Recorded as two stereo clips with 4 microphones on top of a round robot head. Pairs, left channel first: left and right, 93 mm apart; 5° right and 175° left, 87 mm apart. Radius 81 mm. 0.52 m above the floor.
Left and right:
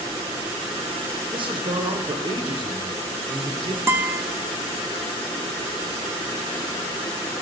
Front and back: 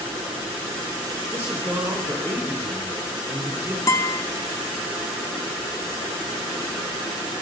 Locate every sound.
1.3 s a man speaking: 115° right, 1.9 m
3.9 s a guitar: 35° right, 1.0 m